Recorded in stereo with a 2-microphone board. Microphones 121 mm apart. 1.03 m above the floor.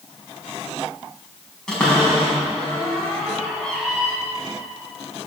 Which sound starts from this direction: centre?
A cupboard door, at 1.7 s.